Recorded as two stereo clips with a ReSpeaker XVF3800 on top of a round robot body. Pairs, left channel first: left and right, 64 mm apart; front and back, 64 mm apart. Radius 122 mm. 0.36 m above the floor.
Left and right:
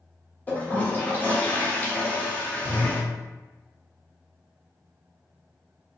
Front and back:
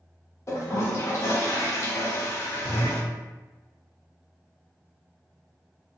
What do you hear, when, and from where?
0.5 s a toilet flushing: 30° left, 1.0 m